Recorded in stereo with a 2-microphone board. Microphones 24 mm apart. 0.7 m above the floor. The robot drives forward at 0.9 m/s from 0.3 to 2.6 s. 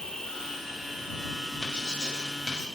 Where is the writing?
35° left (ahead or behind), 1.5 m; by 2.6 s 25° left (ahead or behind), 2.5 m.